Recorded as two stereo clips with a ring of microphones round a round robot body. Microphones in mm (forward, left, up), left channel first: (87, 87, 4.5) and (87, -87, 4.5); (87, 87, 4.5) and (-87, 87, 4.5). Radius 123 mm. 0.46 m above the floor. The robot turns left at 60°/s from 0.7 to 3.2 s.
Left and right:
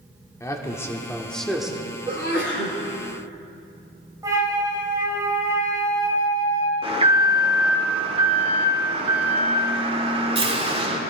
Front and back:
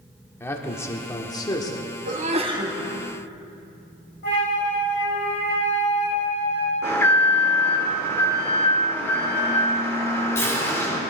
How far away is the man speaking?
About 1.4 m.